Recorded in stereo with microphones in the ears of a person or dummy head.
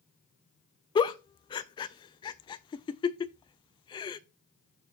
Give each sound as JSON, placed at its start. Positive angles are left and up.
{"t": 0.9, "sound": "a giggle", "side_deg": 20, "distance_m": 0.6}